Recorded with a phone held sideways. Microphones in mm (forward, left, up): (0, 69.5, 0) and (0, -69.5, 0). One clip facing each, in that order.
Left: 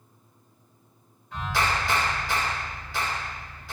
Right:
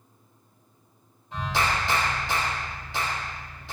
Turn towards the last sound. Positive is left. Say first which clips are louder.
# even
turn(degrees=-20)  # may be behind; listen again after turning